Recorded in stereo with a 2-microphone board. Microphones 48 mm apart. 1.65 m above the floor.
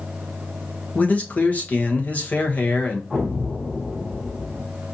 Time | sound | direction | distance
0.9 | a man speaking | 35° left (ahead or behind) | 1.0 m
3.1 | an explosion | 10° left (ahead or behind) | 1.9 m